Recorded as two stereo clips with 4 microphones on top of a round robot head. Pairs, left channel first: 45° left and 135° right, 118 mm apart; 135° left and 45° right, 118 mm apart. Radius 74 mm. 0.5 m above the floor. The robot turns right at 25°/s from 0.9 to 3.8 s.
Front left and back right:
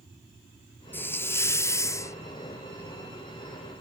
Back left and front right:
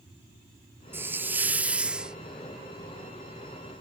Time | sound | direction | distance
0.9 | a hiss | straight ahead | ?